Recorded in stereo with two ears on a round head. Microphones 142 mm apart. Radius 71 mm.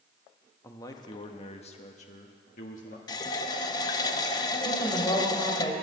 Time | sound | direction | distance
0.6 | a man speaking | 20° left (ahead or behind) | 1.2 m
3.1 | a running tap | 25° left (ahead or behind) | 0.6 m
4.7 | a woman speaking | 30° left (ahead or behind) | 3 m